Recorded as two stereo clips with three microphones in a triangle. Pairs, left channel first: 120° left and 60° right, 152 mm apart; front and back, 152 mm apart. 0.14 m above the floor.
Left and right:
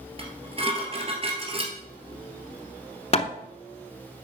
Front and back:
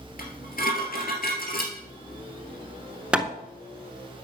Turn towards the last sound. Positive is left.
turn(degrees=100)